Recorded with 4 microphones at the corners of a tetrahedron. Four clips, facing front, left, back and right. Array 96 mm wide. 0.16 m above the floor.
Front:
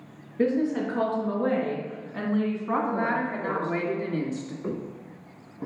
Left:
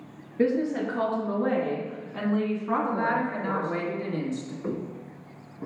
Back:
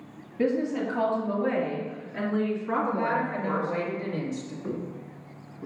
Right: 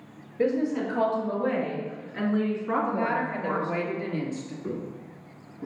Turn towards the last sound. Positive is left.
turn(degrees=25)